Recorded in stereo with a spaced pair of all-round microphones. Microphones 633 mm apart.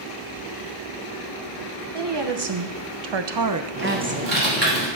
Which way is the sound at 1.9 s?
40° right (ahead or behind).